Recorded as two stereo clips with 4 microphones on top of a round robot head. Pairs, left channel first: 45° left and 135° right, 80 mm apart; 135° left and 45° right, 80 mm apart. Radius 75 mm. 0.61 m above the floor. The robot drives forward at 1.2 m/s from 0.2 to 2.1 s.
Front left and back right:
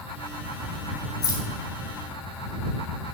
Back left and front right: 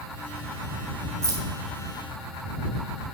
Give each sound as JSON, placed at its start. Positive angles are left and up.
{"t": 1.2, "sound": "keys jangling", "azimuth_deg": 0, "distance_m": 3.5}